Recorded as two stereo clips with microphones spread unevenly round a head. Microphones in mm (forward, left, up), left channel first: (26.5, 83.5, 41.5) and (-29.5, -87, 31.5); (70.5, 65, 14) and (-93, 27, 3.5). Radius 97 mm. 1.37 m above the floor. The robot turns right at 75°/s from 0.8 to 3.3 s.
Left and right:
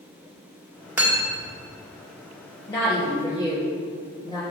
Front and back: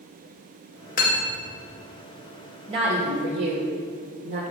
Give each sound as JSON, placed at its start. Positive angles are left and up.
{"t": 1.0, "sound": "cutlery clinking", "azimuth_deg": -30, "distance_m": 1.6}
{"t": 2.7, "sound": "a woman speaking", "azimuth_deg": 135, "distance_m": 1.8}